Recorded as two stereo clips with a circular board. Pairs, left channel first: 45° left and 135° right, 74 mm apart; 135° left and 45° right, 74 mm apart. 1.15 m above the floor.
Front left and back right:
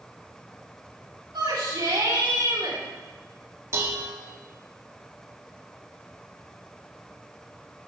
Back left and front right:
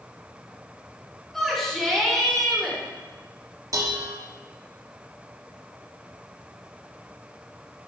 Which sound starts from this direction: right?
Dishes clattering, at 3.7 s.